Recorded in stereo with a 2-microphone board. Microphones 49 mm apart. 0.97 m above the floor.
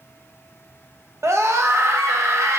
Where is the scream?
70° right (ahead or behind), 0.7 m.